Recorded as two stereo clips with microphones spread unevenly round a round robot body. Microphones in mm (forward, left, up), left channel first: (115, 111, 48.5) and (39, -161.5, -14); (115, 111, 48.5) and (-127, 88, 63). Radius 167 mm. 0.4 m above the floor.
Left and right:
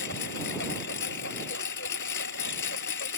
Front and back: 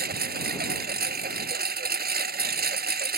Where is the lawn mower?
135° left.